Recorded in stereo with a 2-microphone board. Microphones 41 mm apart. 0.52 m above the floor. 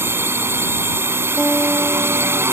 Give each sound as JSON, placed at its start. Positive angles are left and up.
{"t": 0.0, "sound": "a drone", "side_deg": -75}
{"t": 1.4, "sound": "a guitar", "side_deg": -5}